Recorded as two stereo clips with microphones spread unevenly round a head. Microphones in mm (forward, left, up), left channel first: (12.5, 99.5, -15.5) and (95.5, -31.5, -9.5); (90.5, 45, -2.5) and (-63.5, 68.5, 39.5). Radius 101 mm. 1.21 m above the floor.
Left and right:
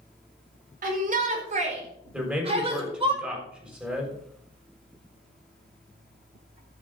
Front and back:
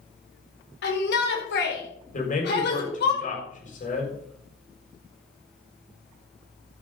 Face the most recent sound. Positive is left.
turn(degrees=25)